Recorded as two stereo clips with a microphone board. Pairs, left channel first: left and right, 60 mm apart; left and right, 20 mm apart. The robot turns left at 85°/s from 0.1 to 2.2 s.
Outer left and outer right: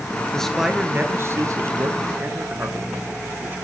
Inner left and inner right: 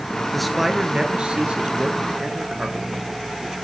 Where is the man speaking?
15° left, 1.7 m; by 3.5 s 140° right, 1.7 m.